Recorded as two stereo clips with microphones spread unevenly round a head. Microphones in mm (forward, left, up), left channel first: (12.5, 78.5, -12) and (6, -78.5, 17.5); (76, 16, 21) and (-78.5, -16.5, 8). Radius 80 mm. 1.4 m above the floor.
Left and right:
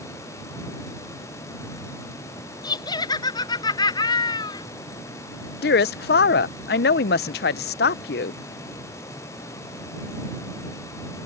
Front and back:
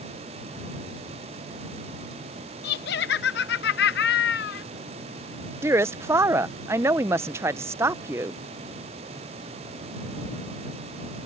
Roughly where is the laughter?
Ahead left.